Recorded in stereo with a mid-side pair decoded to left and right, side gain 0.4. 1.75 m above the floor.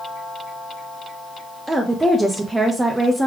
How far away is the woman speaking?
About 0.8 m.